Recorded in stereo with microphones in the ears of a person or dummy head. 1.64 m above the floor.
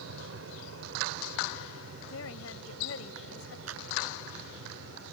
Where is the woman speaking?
85° left.